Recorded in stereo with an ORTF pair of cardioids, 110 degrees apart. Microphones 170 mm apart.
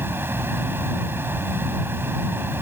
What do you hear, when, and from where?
0.0 s a fan: 10° right